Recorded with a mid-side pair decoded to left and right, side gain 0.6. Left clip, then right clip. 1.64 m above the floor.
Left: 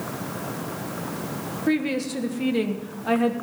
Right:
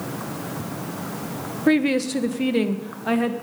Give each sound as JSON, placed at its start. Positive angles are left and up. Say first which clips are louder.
{"t": 1.7, "sound": "a woman speaking", "louder": "right 5 dB", "azimuth_deg": -30, "distance_m": 1.2}